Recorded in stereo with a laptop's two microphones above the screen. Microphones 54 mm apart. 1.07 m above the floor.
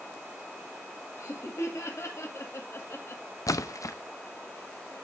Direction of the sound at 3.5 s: 90° left.